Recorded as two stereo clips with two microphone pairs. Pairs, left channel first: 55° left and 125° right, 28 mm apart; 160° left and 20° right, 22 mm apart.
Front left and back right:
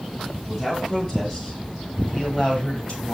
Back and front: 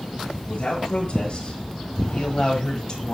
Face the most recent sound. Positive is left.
turn(degrees=110)